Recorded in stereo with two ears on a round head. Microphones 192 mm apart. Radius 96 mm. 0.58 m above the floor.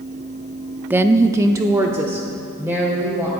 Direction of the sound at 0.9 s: 10° right (ahead or behind).